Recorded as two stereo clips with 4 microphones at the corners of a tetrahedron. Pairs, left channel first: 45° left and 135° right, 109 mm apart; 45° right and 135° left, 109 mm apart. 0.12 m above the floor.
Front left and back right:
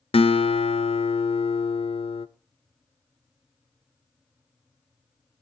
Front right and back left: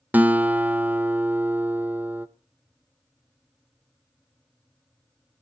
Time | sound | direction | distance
0.1 | a guitar | 65° left | 0.6 m